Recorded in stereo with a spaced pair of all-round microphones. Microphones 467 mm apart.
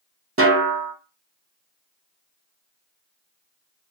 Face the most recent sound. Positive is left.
turn(degrees=-30)  # may be behind; listen again after turning